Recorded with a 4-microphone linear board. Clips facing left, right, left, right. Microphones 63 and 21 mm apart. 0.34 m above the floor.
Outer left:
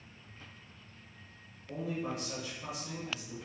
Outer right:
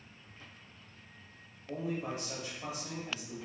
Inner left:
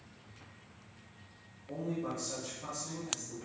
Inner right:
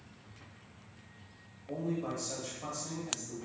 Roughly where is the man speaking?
Right.